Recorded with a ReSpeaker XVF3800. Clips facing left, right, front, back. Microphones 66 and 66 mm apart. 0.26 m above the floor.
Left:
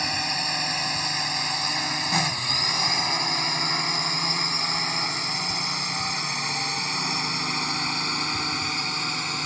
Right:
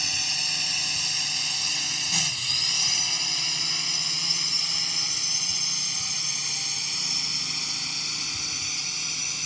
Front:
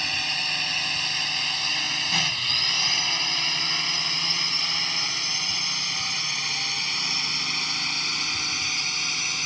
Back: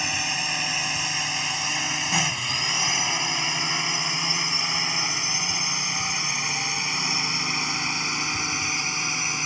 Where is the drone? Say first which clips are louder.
Left 7 dB, back 2 dB; 110° left; by 9.5 s 115° left.